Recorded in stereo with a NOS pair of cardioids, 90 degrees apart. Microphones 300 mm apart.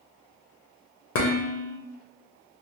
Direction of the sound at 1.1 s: 50° left.